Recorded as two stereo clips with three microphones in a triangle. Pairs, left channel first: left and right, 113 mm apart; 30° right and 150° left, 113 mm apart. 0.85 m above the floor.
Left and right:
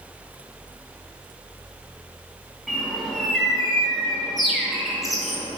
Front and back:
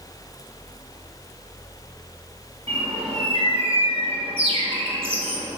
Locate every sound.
2.7 s a bird: straight behind, 3 m